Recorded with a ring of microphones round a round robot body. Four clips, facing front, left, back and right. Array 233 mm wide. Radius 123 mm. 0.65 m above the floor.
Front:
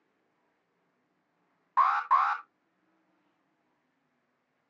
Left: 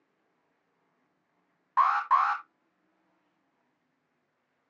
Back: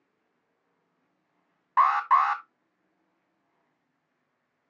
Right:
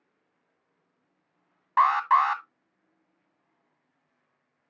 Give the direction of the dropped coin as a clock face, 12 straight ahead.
No dropped coin in this recording.